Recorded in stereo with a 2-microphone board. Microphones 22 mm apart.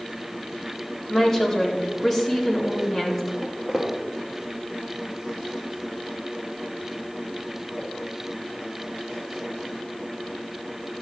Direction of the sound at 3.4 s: Centre (ahead or behind).